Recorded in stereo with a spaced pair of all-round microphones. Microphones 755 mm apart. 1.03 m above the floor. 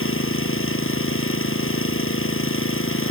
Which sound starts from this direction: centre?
An engine running, at 0.0 s.